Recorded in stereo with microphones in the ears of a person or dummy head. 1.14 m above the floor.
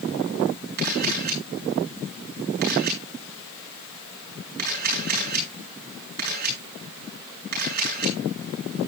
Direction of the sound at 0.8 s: 50° right (ahead or behind).